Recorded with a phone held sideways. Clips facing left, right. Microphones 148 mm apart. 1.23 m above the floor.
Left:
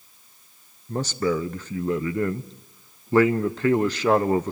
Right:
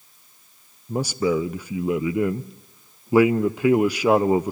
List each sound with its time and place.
0.9 s a man speaking: 10° right (ahead or behind), 0.6 m